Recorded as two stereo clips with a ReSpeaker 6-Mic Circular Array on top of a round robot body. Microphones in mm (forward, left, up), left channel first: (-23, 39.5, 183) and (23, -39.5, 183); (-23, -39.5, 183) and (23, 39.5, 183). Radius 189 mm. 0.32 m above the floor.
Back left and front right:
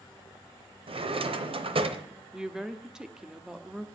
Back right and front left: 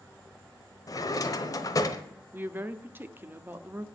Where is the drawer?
70° right, 1.0 m.